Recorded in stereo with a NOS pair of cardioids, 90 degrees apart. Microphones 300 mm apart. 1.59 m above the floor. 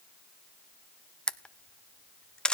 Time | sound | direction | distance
1.3 | a camera shutter | 5° left | 0.8 m